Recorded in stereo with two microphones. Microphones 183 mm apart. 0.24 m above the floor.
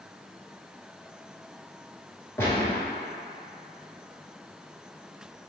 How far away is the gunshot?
About 1.7 m.